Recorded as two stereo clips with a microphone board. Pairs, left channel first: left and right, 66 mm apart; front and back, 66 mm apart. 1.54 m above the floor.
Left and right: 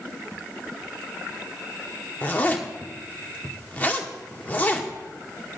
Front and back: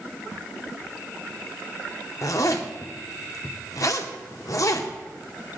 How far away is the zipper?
About 0.8 m.